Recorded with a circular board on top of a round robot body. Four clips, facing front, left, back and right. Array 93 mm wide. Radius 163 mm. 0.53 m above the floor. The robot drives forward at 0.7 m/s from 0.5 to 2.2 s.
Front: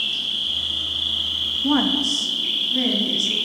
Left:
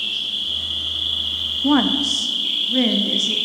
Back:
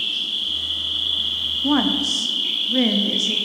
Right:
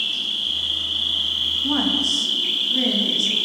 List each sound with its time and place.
0.0 s an insect: 45° right, 2 m; by 3.5 s 90° right, 1.8 m
1.6 s a woman speaking: 90° left, 0.7 m; by 3.4 s 140° left, 0.8 m